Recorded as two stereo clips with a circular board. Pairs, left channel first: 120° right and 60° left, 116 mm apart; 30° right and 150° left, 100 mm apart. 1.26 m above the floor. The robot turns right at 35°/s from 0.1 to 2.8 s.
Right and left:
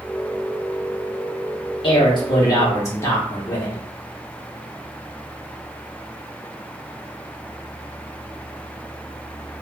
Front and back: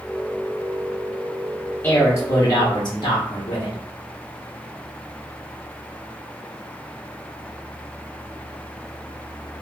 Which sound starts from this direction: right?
A man speaking, at 1.8 s.